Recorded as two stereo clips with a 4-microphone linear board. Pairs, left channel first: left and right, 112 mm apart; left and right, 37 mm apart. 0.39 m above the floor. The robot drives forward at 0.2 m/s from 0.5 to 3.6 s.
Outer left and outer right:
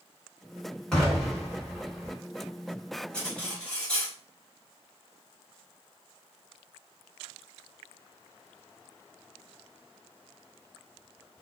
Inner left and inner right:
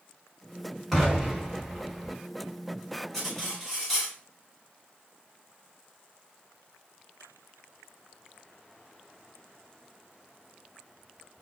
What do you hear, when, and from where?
0.9 s an explosion: 5° left (ahead or behind), 1.6 m
3.1 s cutlery clinking: 10° left (ahead or behind), 1.2 m